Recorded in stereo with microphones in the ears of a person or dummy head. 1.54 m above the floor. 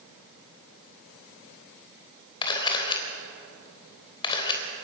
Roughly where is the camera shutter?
Left.